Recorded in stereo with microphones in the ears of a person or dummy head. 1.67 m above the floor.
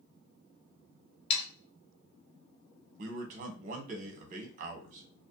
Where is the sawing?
35° left (ahead or behind), 0.5 m.